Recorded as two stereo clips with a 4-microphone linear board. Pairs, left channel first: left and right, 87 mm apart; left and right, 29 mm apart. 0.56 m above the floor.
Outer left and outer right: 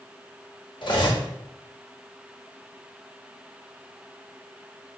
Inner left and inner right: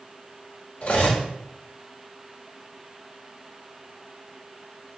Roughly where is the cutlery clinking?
Left.